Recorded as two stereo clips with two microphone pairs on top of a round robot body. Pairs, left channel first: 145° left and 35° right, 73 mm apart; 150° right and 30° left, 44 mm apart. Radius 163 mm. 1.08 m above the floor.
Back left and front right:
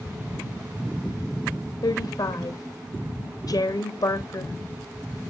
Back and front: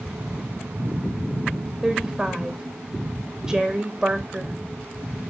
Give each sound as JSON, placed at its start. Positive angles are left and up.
{"t": 1.8, "sound": "a woman speaking", "azimuth_deg": 110, "distance_m": 1.7}